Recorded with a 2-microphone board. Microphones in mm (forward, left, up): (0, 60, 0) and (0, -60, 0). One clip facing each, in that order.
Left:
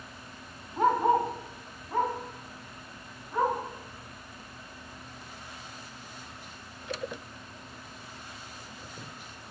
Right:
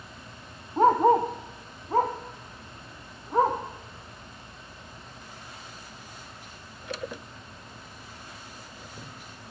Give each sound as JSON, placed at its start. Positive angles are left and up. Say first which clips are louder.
{"t": 0.8, "sound": "a dog barking", "louder": "right 4 dB", "side_deg": -30, "distance_m": 1.2}